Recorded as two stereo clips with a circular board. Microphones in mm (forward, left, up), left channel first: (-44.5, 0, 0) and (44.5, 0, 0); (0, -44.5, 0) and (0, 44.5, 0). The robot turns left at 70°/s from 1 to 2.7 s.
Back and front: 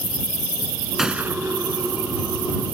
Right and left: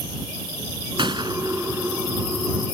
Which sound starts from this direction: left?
A gunshot, at 1.0 s.